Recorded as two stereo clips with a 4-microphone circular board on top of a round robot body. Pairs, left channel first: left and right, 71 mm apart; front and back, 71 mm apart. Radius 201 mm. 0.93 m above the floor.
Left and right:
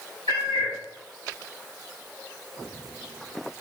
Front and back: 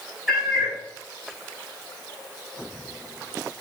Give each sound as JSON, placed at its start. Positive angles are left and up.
{"t": 0.3, "sound": "a cat meowing", "azimuth_deg": 90, "distance_m": 0.8}